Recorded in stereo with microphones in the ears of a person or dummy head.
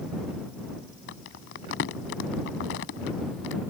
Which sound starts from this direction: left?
Crumpling, at 1.1 s.